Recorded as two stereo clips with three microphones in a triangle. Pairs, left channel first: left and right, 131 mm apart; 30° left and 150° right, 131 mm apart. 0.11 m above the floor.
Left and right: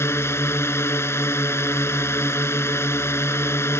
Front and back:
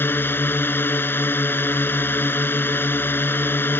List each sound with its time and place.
0.0 s a drone: 70° left